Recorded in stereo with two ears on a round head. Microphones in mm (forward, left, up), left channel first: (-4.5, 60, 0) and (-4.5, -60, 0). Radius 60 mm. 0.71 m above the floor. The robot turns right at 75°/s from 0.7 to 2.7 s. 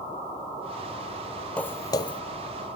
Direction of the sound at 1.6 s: 10° left (ahead or behind).